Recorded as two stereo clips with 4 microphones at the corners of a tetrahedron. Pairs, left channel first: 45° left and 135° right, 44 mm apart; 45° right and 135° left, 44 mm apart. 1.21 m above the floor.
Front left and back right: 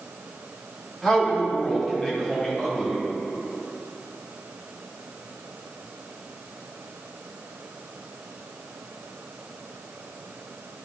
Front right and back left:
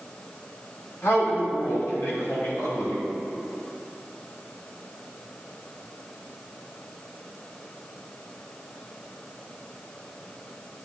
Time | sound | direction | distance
1.0 | a man speaking | 35° right | 3 m